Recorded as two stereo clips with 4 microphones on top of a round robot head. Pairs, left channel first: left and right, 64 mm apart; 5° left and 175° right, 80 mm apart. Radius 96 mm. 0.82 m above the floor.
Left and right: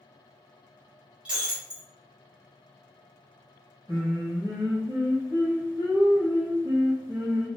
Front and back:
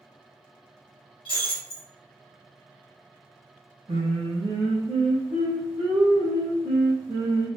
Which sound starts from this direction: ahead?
Breaking glass, at 1.2 s.